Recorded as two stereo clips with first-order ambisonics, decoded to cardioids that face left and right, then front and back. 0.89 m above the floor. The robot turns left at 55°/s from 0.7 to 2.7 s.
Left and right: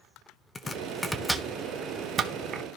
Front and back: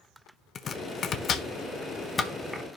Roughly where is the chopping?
Ahead left.